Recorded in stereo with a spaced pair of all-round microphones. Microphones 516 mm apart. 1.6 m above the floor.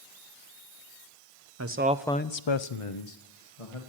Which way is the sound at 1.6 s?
30° right (ahead or behind).